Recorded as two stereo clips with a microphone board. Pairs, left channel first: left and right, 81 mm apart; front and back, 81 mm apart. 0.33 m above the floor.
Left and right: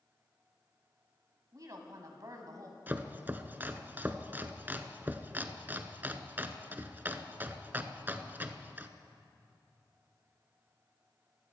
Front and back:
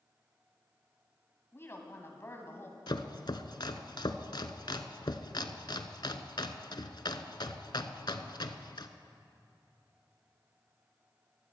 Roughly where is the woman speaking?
Ahead right.